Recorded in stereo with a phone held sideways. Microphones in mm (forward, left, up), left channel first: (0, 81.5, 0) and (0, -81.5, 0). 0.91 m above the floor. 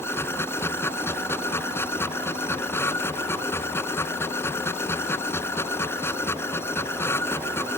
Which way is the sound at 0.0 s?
15° left (ahead or behind).